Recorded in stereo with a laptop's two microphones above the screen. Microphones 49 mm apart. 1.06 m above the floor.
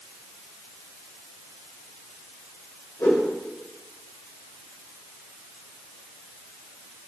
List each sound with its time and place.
3.0 s a whoosh: 75° left (ahead or behind), 3 m